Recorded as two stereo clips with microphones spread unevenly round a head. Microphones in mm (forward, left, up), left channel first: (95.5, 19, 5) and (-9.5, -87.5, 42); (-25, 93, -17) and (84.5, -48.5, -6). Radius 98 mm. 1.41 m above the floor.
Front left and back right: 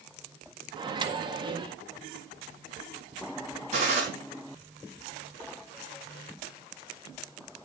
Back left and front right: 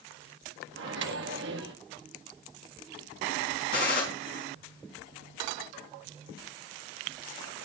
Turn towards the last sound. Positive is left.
turn(degrees=170)